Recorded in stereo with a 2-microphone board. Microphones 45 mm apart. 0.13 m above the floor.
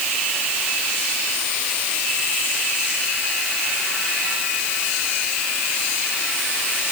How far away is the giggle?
I don't hear a giggle.